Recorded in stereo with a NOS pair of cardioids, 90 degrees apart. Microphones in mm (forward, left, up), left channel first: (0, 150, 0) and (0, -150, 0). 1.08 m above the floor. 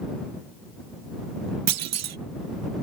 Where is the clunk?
60° right.